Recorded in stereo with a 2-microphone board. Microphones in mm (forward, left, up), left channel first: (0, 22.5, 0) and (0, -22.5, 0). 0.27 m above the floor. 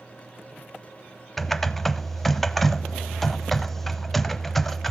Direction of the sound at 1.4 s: 5° left (ahead or behind).